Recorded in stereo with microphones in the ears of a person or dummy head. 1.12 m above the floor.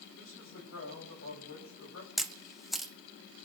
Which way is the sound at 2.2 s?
5° left (ahead or behind).